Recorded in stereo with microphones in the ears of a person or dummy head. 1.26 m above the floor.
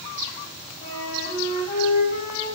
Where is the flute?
55° left (ahead or behind), 6 m.